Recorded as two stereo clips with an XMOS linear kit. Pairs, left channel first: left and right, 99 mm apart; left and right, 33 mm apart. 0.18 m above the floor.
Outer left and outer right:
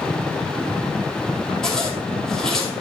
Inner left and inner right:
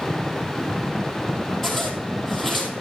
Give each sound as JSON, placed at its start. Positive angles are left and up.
{"t": 1.6, "sound": "a zipper", "side_deg": 5, "distance_m": 1.7}